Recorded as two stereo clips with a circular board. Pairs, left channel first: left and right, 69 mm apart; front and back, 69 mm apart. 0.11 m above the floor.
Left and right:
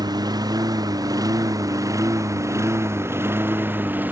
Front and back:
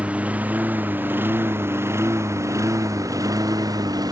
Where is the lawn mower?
110° right; by 4.1 s 155° right.